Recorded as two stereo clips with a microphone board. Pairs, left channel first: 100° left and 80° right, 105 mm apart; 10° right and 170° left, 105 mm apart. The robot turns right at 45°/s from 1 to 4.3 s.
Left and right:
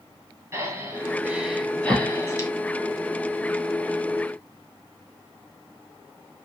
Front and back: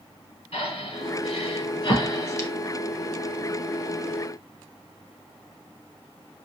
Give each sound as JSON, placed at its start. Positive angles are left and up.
{"t": 0.5, "sound": "breathing", "azimuth_deg": -20, "distance_m": 0.9}